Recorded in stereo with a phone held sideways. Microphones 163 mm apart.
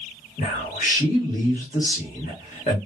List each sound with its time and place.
0.4 s a man speaking: 55° left (ahead or behind), 1.5 m